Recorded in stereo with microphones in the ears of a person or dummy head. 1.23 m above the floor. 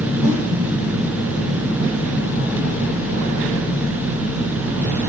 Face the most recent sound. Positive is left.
turn(degrees=-35)  # may be behind; listen again after turning